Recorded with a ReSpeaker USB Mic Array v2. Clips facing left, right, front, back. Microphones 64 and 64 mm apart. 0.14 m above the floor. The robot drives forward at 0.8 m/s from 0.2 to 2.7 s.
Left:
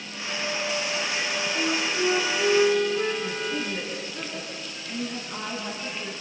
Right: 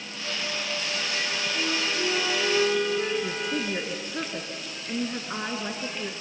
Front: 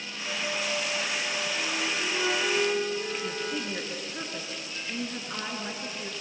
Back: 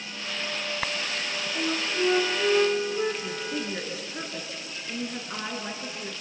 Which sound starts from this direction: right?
A woman speaking, at 3.2 s.